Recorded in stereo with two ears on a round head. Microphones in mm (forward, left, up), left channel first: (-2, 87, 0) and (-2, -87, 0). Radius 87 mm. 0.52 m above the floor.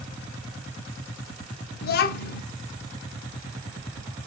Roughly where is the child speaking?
Left.